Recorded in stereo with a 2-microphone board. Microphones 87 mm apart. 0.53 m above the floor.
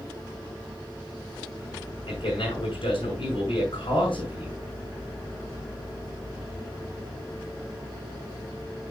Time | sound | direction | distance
2.1 | a man speaking | 75° left (ahead or behind) | 5.5 m